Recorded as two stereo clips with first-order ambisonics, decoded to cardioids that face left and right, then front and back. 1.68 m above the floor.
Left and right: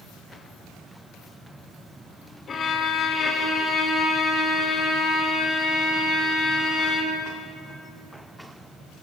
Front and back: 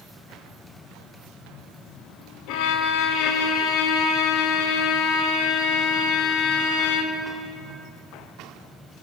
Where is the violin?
25° left, 0.9 m.